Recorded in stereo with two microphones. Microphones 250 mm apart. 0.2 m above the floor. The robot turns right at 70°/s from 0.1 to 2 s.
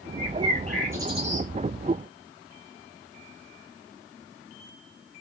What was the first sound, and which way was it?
A bird, 140° left.